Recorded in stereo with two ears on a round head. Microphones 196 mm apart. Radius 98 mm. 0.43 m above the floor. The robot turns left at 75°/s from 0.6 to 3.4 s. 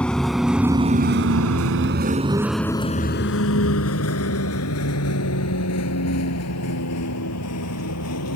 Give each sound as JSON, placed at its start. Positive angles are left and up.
{"t": 0.0, "sound": "a vehicle", "side_deg": 5}